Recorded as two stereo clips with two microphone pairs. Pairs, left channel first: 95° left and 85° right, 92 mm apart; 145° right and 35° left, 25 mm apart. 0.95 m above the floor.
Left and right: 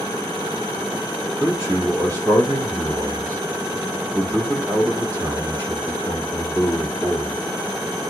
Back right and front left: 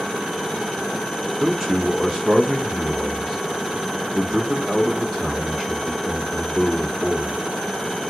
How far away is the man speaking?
About 1.3 m.